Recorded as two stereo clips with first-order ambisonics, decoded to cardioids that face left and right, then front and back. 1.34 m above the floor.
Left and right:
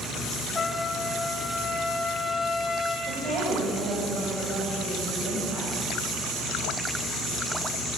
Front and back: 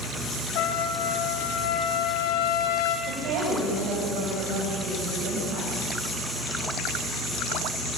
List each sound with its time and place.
0.6 s a trumpet: 15° left, 2 m
3.1 s a woman speaking: 155° right, 7 m